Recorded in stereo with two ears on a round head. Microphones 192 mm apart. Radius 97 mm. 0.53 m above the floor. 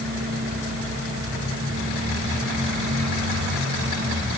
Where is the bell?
I don't hear a bell.